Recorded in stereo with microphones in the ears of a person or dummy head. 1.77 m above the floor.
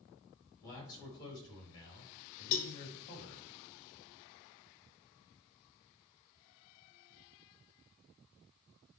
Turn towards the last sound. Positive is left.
turn(degrees=45)  # may be behind; listen again after turning